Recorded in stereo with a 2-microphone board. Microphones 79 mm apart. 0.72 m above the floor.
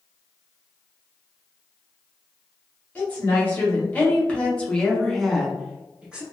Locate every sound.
3.0 s a woman speaking: 20° left (ahead or behind), 1.6 m; by 6.2 s 15° right (ahead or behind), 0.8 m